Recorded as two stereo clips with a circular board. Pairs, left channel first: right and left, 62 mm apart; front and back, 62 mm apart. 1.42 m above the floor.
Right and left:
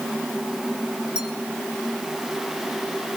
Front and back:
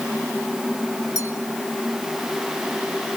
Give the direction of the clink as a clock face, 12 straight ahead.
11 o'clock.